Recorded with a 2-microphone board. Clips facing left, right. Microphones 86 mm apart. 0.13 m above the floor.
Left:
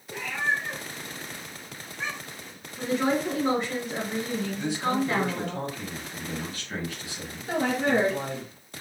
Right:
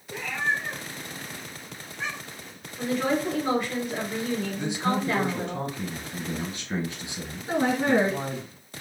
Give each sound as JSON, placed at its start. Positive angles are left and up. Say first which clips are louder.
{"t": 0.1, "sound": "a cat meowing", "louder": "even", "side_deg": 0, "distance_m": 1.4}
{"t": 2.8, "sound": "a woman speaking", "louder": "even", "side_deg": 30, "distance_m": 1.8}
{"t": 4.6, "sound": "a man speaking", "louder": "left 2 dB", "side_deg": -25, "distance_m": 1.2}
{"t": 7.5, "sound": "a woman speaking", "louder": "right 2 dB", "side_deg": -20, "distance_m": 1.6}